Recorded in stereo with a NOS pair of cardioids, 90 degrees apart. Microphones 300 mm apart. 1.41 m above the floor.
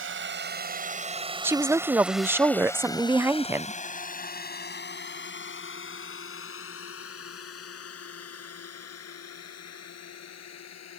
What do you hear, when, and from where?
0.0 s a drone: 40° right; by 11.0 s 60° left
1.4 s a woman speaking: 5° right